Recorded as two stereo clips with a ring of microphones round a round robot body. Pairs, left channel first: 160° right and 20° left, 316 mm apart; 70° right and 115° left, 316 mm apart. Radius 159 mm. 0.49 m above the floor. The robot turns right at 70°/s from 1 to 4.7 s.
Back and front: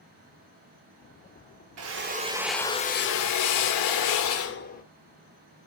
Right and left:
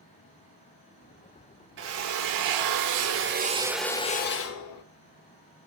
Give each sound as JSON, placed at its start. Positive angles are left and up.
{"t": 1.8, "sound": "a drill", "azimuth_deg": 60, "distance_m": 0.9}